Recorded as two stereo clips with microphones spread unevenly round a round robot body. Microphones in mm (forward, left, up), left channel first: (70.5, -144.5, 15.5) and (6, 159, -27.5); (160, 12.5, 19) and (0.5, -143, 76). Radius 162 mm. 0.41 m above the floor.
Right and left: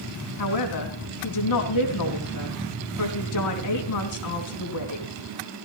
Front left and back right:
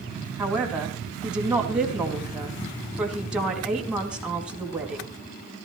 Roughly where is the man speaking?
Ahead right.